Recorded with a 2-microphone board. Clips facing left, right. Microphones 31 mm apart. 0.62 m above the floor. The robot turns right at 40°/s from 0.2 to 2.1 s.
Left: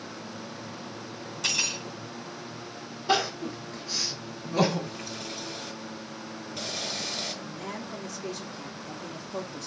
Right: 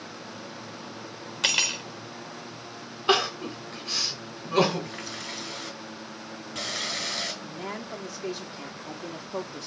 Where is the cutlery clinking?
70° right (ahead or behind), 1.4 m; by 1.8 s 80° right, 1.4 m.